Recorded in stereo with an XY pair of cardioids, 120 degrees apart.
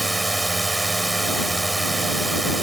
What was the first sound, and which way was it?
A drone, 15° right.